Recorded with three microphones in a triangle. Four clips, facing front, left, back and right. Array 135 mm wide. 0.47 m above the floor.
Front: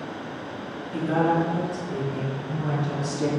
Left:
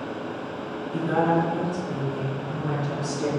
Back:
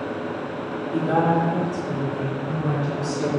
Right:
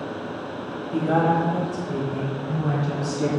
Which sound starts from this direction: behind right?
A woman speaking, at 0.9 s.